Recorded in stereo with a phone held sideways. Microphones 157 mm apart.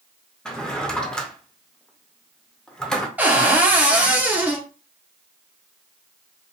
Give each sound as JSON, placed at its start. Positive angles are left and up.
{"t": 0.5, "sound": "a drawer", "side_deg": 5, "distance_m": 0.5}
{"t": 3.2, "sound": "a cupboard door", "side_deg": -10, "distance_m": 0.7}